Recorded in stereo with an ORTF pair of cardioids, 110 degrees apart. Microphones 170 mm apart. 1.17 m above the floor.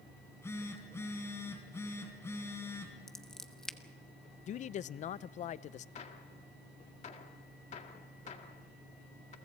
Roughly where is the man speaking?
Ahead left.